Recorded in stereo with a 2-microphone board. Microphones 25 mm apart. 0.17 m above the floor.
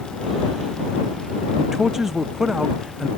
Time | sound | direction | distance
1.6 | a man speaking | 20° right (ahead or behind) | ?